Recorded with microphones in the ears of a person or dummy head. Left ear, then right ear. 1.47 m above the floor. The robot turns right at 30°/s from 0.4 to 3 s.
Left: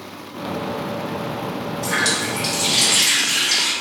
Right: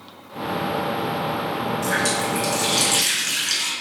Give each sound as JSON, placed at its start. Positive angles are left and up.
{"t": 1.8, "sound": "a running tap", "azimuth_deg": -140, "distance_m": 1.7}